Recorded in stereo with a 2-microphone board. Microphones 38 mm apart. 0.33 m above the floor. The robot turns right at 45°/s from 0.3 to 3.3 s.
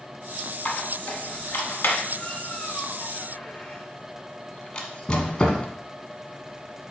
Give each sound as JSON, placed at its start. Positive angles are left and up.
{"t": 0.7, "sound": "a squeak", "side_deg": 40, "distance_m": 1.2}